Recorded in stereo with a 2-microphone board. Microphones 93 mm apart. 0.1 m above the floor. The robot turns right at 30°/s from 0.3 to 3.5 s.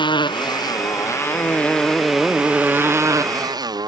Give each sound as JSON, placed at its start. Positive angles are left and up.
{"t": 0.0, "sound": "a motorcycle", "side_deg": 60}